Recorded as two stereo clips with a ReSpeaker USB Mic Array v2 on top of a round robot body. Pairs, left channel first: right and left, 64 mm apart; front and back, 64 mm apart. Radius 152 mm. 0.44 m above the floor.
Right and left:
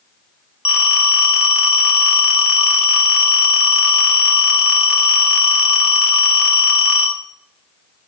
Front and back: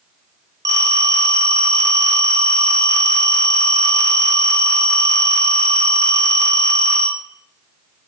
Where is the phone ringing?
165° left, 2 m.